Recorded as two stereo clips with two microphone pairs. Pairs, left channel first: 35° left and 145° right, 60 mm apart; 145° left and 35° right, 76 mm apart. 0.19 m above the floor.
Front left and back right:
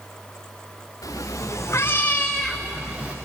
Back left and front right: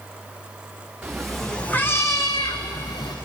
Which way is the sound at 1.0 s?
45° left.